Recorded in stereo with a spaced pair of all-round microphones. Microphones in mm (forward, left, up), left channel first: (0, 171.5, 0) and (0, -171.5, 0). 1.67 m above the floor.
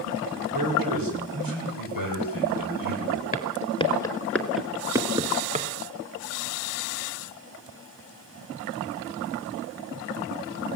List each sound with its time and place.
0.5 s a man speaking: 75° right (ahead or behind), 6.5 m
3.3 s footsteps: 20° left (ahead or behind), 1.7 m; by 5.7 s 20° right (ahead or behind), 1.7 m